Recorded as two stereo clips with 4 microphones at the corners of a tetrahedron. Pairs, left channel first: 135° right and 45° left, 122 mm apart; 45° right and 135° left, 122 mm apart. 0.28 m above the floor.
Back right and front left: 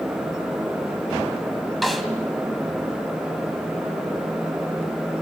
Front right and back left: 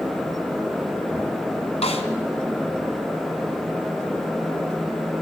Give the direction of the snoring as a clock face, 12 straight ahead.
No snoring in this recording.